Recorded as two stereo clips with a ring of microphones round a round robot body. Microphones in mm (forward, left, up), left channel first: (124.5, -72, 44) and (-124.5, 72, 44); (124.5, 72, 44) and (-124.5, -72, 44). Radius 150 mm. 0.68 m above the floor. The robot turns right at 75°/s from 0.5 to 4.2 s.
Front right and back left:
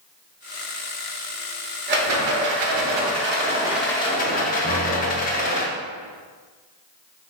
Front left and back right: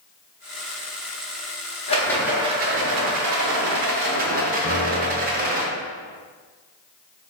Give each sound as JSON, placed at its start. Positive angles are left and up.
{"t": 1.9, "sound": "a rattle", "azimuth_deg": 95, "distance_m": 0.7}
{"t": 4.6, "sound": "a piano", "azimuth_deg": 35, "distance_m": 0.7}